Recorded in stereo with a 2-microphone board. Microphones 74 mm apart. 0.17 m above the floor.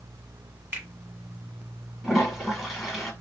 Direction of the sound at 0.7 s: 25° right (ahead or behind).